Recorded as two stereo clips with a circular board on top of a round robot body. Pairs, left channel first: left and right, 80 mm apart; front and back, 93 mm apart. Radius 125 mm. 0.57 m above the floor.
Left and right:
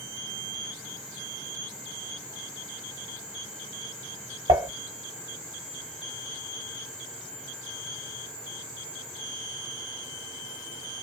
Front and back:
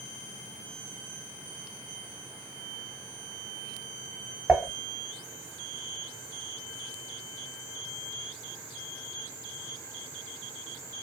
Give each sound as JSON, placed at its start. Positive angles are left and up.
{"t": 4.5, "sound": "dishes clattering", "azimuth_deg": -90, "distance_m": 2.5}